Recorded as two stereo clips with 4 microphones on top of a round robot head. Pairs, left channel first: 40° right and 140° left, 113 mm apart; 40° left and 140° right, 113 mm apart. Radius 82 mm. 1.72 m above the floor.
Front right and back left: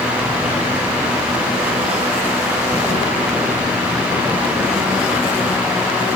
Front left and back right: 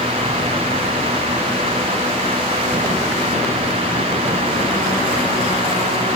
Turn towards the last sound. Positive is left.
No sound to turn to.